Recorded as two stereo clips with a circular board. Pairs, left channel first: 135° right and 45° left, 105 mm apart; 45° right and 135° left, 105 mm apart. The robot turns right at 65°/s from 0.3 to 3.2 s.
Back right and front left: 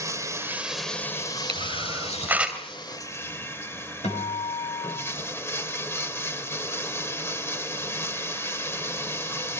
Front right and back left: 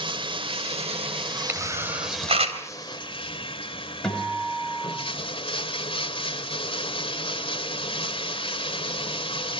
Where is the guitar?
130° right, 5 m.